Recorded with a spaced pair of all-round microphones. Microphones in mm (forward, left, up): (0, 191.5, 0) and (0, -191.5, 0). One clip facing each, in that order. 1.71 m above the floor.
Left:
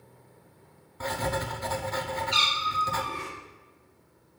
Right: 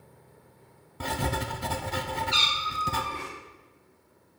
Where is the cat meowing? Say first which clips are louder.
Left 1 dB; 45° left (ahead or behind), 2.0 m.